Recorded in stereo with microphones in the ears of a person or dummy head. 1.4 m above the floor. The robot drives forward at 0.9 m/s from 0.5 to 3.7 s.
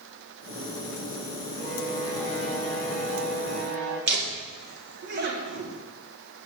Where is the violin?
55° right (ahead or behind), 4 m; by 4.0 s 75° right (ahead or behind), 3.5 m.